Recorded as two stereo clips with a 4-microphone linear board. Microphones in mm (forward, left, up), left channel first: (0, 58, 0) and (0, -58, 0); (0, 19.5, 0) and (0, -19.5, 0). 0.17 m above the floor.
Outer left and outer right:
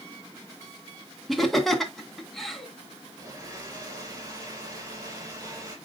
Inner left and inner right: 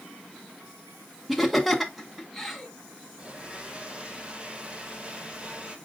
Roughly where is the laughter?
Centre.